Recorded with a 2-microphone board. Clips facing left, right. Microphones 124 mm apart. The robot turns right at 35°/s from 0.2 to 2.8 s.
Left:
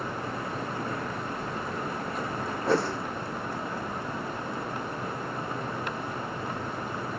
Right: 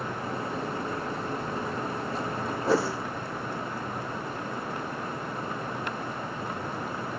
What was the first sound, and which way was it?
A whoosh, centre (ahead or behind).